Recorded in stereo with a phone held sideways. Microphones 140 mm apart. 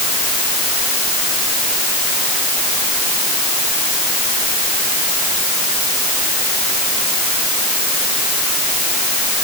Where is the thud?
No thud in this recording.